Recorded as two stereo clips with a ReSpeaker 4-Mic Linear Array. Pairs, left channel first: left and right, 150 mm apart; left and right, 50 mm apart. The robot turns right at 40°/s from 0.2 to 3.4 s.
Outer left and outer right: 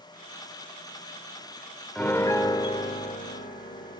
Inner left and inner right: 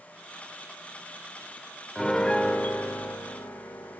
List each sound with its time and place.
1.9 s a piano: 10° left, 0.8 m; by 4.0 s 70° left, 0.8 m